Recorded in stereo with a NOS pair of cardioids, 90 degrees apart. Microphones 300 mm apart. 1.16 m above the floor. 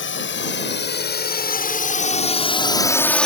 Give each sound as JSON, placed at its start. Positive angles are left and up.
{"t": 0.0, "sound": "a drone", "azimuth_deg": 45}